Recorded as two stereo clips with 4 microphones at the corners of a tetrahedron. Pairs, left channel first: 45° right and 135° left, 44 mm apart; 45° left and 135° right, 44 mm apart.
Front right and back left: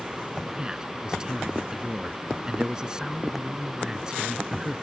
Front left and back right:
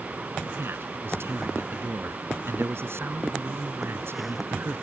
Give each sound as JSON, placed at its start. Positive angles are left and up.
{"t": 0.6, "sound": "a man speaking", "azimuth_deg": -150}